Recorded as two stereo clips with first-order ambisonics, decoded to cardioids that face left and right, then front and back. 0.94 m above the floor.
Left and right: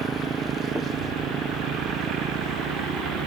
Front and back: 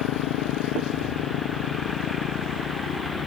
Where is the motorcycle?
20° right; by 3.3 s 40° right.